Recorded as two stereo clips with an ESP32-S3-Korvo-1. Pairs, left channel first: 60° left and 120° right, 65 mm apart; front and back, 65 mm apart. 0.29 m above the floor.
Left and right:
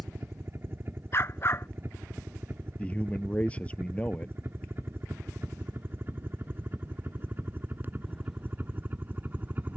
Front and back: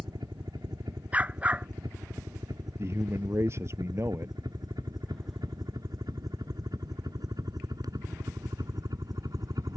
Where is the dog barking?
110° left.